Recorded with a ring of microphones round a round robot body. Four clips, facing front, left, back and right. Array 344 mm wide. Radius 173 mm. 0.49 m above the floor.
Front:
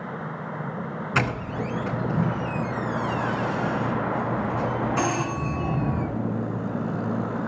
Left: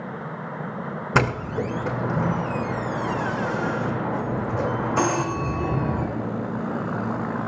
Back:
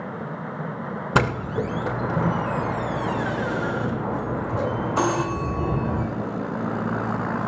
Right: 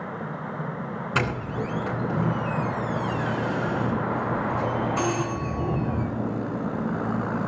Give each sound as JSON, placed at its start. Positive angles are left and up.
{"t": 1.1, "sound": "a doorbell", "azimuth_deg": 140, "distance_m": 3.0}